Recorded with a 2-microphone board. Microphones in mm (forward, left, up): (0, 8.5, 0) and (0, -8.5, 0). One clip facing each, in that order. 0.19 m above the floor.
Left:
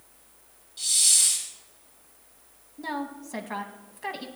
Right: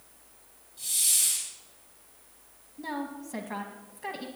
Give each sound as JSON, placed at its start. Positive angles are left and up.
{"t": 0.8, "sound": "a hiss", "side_deg": 45, "distance_m": 4.0}
{"t": 2.8, "sound": "a woman speaking", "side_deg": 20, "distance_m": 1.0}